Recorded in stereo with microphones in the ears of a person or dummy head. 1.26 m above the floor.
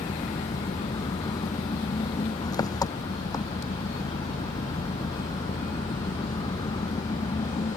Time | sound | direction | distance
0.0 | an engine running | 20° left (ahead or behind) | ?